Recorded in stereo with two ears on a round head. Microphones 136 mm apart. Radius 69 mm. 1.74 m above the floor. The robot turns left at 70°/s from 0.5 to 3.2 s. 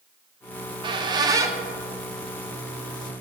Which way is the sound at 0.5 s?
30° right (ahead or behind).